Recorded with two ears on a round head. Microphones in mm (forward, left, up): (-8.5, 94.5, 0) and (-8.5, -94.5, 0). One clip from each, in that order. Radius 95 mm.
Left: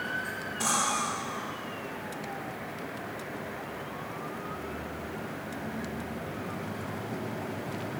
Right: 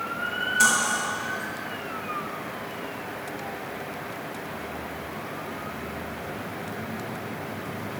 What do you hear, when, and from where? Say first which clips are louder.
0.6 s cutlery clinking: right 6 dB; 70° right (ahead or behind), 7 m